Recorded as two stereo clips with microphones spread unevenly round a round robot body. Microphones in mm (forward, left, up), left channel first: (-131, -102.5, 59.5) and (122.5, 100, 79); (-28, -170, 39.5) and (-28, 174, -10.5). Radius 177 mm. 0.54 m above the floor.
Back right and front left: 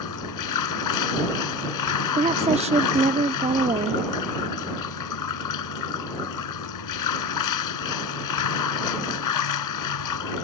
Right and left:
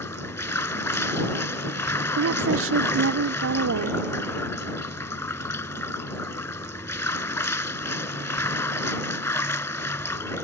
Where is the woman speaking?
105° left.